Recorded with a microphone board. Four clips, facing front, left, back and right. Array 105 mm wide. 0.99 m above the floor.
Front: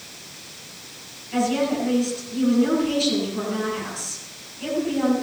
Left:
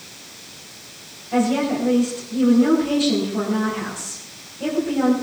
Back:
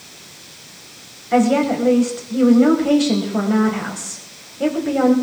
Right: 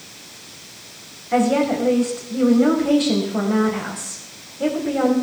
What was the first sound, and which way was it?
A woman speaking, 155° right.